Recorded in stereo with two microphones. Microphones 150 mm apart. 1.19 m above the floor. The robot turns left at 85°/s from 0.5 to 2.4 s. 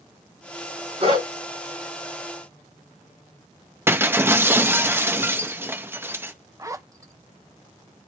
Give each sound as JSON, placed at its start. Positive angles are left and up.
{"t": 1.0, "sound": "a dog barking", "side_deg": -45, "distance_m": 4.5}
{"t": 3.9, "sound": "breaking glass", "side_deg": -15, "distance_m": 0.8}
{"t": 6.6, "sound": "a zipper", "side_deg": -20, "distance_m": 0.7}